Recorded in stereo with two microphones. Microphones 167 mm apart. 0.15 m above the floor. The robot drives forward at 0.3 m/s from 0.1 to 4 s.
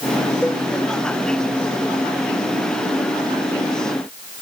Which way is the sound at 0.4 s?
5° left (ahead or behind).